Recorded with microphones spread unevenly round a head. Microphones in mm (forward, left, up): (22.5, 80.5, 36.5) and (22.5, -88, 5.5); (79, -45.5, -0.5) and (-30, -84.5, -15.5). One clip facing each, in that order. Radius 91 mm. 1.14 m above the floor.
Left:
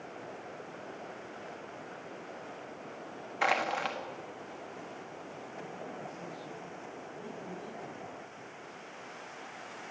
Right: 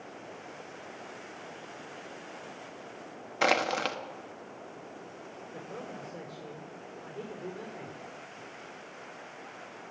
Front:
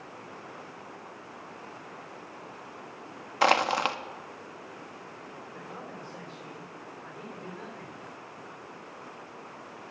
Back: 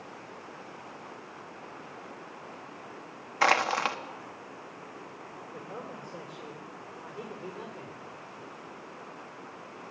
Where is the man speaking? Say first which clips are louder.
Right 3 dB, back 3 dB; 85° right, 3.5 m.